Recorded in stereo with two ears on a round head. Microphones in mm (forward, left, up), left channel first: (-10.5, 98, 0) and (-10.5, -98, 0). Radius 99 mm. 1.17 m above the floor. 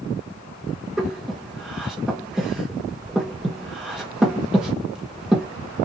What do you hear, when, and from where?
1.0 s breathing: 5° right (ahead or behind), 1.1 m